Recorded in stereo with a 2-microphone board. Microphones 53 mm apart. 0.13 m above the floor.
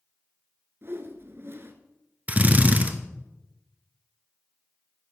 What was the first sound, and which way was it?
A whoosh, 50° right (ahead or behind).